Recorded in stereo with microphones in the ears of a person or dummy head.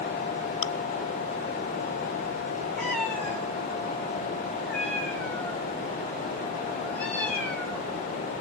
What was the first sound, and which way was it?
Chewing, 50° left (ahead or behind).